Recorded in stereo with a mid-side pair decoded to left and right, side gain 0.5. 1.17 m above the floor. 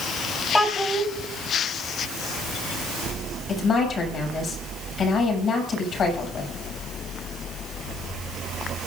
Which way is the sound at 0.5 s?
10° left.